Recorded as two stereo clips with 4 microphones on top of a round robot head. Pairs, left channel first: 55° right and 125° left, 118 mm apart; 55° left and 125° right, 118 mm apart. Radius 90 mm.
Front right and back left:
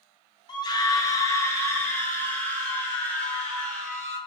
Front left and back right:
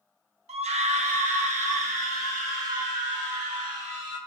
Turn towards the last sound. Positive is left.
turn(degrees=-135)